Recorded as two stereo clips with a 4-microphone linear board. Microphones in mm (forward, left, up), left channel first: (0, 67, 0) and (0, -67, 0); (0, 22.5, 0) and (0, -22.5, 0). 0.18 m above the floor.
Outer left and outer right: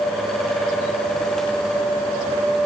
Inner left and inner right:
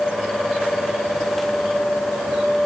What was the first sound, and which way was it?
Only background noise.